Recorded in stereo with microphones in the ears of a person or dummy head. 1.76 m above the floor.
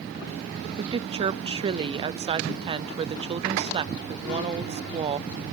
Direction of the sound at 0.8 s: 25° right (ahead or behind).